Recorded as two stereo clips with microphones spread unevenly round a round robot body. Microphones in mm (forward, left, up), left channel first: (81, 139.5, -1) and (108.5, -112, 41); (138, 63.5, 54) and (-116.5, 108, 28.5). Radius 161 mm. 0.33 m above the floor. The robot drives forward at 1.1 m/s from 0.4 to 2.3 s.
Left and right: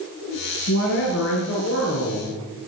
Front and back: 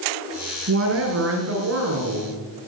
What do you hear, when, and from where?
0.7 s a woman speaking: 135° left, 4 m; by 2.4 s 150° left, 5.5 m